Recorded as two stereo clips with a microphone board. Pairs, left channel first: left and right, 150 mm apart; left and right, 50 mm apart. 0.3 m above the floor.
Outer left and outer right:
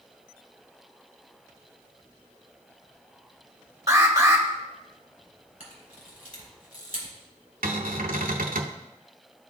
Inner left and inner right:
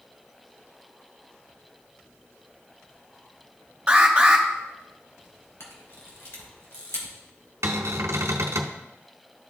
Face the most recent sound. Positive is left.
turn(degrees=-75)  # may be behind; listen again after turning